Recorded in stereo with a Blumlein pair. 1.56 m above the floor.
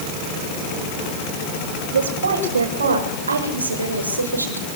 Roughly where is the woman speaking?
Ahead right.